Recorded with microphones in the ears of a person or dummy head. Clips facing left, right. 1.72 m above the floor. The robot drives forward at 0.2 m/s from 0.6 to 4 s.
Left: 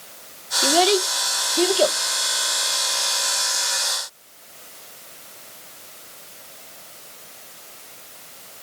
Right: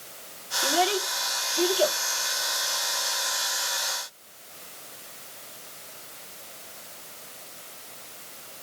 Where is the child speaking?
55° left (ahead or behind), 1.1 m.